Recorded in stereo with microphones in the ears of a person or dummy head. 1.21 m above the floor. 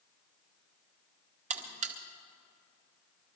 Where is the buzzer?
35° right (ahead or behind), 0.7 m.